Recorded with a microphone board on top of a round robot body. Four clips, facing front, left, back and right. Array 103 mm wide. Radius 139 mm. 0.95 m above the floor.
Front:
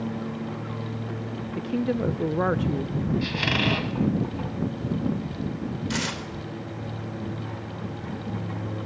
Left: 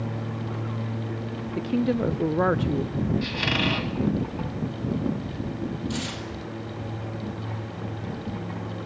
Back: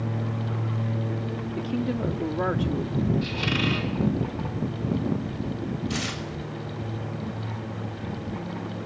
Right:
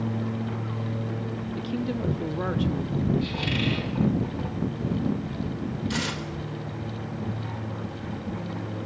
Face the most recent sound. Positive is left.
turn(degrees=-30)